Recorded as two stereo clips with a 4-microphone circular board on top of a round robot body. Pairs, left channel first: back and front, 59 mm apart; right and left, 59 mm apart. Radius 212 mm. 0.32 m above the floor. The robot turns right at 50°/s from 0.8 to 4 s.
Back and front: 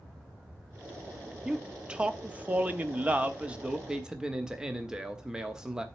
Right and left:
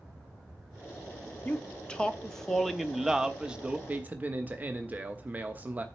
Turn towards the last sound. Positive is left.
turn(degrees=65)